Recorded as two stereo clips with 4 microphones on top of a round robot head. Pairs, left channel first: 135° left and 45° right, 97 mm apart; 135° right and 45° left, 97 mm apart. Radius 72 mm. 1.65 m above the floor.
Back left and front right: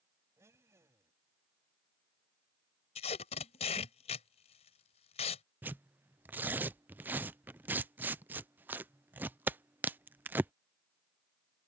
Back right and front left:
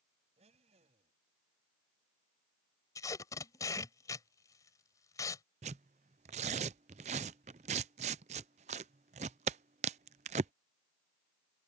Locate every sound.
0.4 s a blender: 25° left
3.0 s tape being pulled: 165° left
5.6 s tearing paper: 30° left